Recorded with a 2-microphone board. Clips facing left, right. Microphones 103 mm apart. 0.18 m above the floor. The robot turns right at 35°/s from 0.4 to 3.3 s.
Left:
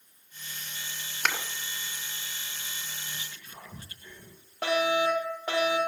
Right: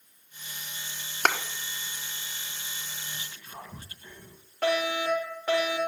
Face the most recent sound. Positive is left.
turn(degrees=15)  # may be behind; listen again after turning